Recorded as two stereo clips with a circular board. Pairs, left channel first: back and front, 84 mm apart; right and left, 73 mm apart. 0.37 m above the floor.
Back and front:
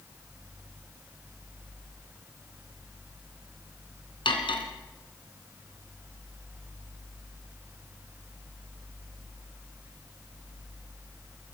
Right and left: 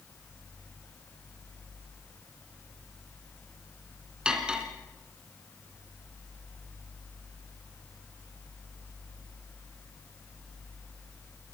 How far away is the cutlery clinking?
About 2.5 m.